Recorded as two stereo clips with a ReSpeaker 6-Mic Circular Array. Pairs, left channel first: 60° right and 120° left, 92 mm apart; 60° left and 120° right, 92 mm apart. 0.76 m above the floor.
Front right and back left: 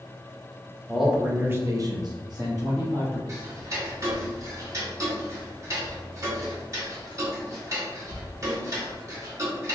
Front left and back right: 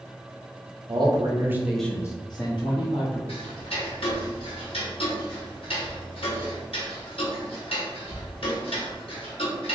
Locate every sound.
0.9 s a man speaking: 155° right, 1.1 m; by 3.2 s 65° left, 1.5 m
3.3 s ticking: 65° left, 0.9 m